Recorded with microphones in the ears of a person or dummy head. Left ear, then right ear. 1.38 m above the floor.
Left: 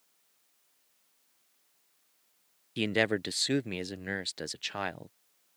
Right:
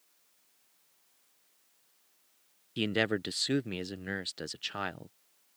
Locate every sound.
2.8 s a man speaking: 15° left (ahead or behind)